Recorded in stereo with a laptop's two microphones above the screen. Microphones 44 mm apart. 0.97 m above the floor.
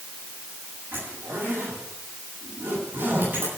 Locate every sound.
0.9 s a zipper: 55° right (ahead or behind), 9 m